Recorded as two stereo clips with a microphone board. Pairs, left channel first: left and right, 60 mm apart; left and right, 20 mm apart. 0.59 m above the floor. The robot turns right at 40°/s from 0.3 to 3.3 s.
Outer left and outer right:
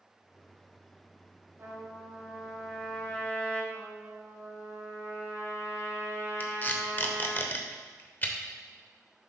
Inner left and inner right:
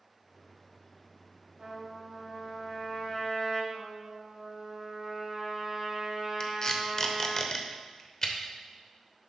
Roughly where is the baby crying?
I don't hear a baby crying.